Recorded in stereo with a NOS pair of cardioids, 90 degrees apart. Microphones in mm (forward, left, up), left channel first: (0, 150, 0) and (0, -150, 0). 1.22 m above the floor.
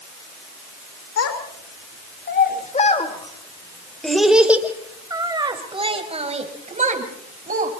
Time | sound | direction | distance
1.2 | a child speaking | 55° left | 3 m